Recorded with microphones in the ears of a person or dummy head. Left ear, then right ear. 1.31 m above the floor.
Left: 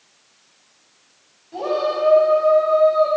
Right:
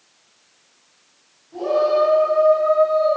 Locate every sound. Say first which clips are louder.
1.5 s a shout: right 4 dB; 70° left (ahead or behind), 4.5 m